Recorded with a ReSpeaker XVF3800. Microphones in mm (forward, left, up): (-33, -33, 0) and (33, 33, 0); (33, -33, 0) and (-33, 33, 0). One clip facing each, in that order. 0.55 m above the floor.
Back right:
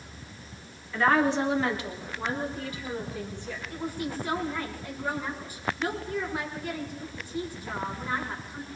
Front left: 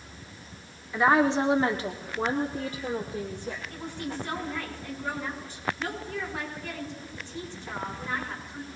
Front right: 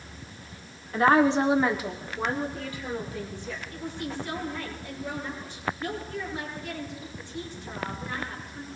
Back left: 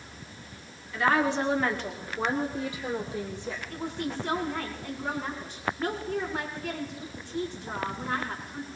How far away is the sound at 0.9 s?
About 1.3 m.